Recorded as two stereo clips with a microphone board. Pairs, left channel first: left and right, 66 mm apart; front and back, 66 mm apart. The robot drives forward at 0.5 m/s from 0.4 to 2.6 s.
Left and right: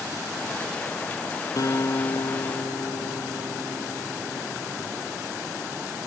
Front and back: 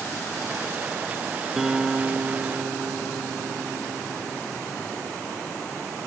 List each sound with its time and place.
1.6 s a guitar: 95° left, 1.1 m; by 5.0 s 120° left, 1.2 m